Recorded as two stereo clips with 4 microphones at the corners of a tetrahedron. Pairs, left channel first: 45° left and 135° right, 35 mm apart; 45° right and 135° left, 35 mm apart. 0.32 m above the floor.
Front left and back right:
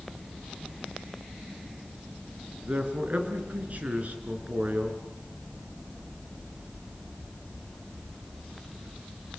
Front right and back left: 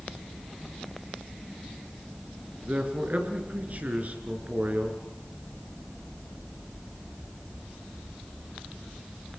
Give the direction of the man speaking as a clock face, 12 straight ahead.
6 o'clock.